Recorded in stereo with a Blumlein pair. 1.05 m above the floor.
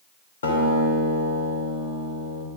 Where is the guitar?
65° left, 3 m.